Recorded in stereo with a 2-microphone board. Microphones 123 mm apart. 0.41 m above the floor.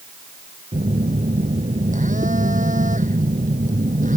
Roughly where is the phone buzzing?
Right.